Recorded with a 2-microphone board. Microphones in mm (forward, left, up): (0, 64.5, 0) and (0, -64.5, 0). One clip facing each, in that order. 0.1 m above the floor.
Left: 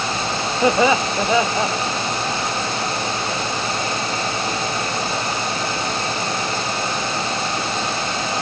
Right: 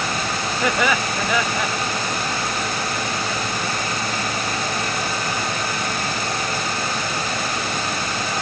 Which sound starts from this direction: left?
Laughter, at 0.6 s.